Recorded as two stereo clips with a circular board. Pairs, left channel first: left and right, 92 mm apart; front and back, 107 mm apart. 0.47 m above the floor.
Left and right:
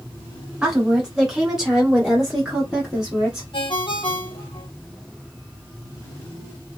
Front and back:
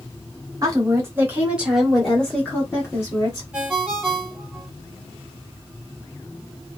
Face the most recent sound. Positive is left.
turn(degrees=100)